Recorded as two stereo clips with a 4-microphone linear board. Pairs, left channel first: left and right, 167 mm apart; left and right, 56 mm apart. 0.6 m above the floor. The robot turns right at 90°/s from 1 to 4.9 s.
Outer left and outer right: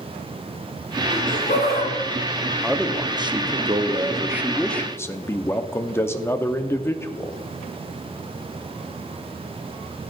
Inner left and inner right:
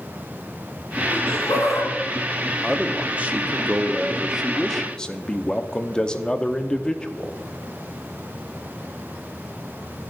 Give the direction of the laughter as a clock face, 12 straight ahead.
11 o'clock.